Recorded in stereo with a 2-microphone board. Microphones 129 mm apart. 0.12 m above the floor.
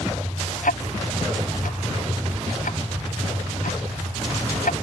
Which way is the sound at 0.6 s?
85° left.